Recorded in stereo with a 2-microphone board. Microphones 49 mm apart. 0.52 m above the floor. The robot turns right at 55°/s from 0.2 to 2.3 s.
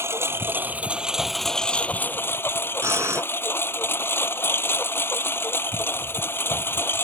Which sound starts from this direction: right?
Breathing, at 2.8 s.